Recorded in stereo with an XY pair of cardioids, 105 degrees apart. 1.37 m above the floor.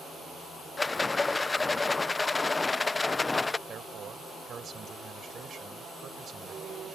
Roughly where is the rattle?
Ahead left.